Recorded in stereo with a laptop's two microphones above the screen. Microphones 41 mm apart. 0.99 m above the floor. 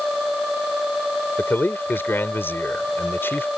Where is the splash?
No splash in this recording.